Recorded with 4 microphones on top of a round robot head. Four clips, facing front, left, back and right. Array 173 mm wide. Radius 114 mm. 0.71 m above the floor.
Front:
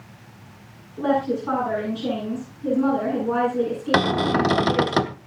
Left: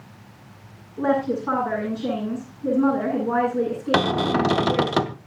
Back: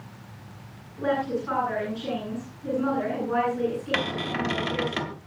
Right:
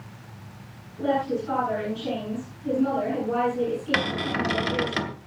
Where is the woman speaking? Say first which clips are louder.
Left 3 dB, front 4 dB; 55° left, 10 m.